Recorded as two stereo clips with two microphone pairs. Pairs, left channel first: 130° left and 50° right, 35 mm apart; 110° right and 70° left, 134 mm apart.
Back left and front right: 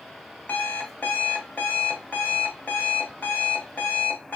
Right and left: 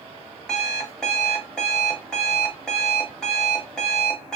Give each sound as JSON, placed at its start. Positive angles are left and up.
{"t": 0.5, "sound": "an alarm clock", "azimuth_deg": 165, "distance_m": 1.1}